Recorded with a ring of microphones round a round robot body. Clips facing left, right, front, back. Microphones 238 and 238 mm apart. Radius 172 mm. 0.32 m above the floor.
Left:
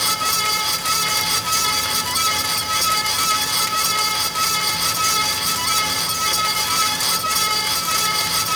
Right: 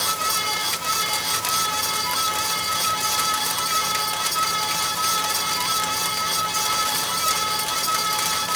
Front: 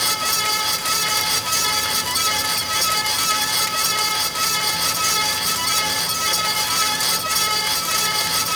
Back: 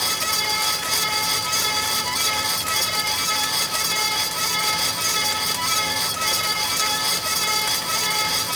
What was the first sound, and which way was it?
Only background noise.